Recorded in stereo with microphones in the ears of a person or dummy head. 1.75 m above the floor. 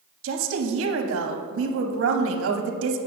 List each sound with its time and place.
0.2 s a woman speaking: 80° right, 0.9 m